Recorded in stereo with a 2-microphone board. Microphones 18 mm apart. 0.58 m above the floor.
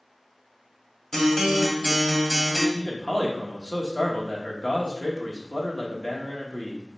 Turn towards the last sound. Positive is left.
turn(degrees=45)  # may be behind; listen again after turning